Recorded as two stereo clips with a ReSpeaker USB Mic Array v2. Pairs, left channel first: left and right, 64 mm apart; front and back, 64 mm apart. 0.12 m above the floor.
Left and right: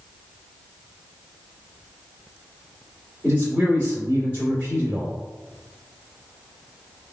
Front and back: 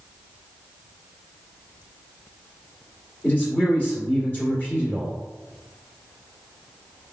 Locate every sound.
3.2 s a man speaking: 40° right, 1.9 m